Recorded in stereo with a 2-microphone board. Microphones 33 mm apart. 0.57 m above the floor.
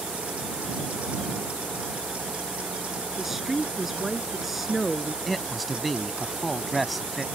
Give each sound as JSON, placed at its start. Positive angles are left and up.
{"t": 3.2, "sound": "a woman speaking", "side_deg": -5}
{"t": 5.2, "sound": "a man speaking", "side_deg": 0}